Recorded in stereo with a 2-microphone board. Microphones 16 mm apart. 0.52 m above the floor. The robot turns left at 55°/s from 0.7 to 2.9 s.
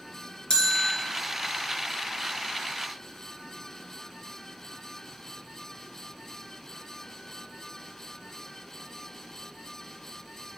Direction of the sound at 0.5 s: 50° left (ahead or behind).